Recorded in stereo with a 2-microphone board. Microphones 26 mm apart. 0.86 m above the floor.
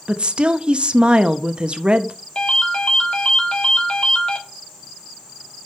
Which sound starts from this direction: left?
A ringtone, at 2.4 s.